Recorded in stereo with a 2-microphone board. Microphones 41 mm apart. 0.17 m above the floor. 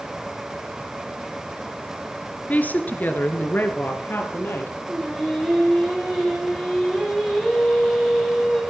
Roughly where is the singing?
Centre.